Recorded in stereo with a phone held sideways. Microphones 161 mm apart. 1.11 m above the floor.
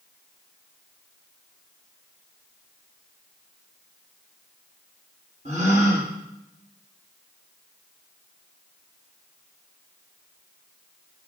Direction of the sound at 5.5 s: 45° right (ahead or behind).